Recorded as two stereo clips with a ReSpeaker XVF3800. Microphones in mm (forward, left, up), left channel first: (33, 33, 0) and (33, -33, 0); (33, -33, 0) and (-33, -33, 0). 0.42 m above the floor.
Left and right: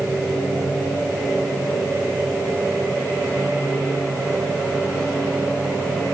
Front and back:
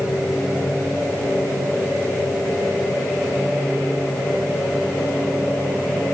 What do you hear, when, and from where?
Only background noise.